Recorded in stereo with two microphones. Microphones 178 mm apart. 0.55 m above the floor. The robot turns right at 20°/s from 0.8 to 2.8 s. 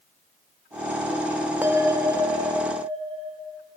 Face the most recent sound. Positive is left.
turn(degrees=-30)  # may be behind; listen again after turning